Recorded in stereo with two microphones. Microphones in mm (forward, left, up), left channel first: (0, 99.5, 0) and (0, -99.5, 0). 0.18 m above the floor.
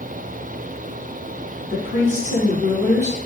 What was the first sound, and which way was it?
A woman speaking, 35° right (ahead or behind).